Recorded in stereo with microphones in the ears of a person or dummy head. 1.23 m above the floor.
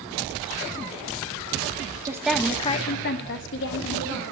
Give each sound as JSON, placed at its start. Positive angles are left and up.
{"t": 2.0, "sound": "a woman speaking", "side_deg": -20, "distance_m": 1.0}